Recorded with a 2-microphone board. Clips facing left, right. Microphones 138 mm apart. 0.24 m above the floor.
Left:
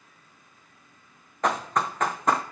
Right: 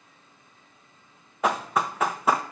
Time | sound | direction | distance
1.4 | running footsteps | 5° right (ahead or behind) | 0.7 m